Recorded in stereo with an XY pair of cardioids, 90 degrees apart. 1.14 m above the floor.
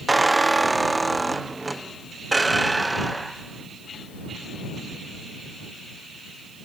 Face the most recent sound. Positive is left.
turn(degrees=-15)